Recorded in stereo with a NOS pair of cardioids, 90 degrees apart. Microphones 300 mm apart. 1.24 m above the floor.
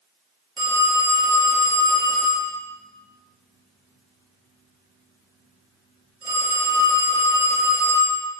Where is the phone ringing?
15° right, 1.4 m.